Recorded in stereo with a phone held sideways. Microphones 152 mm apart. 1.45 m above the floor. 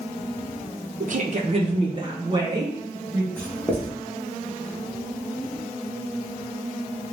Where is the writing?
10° left (ahead or behind), 1.4 m.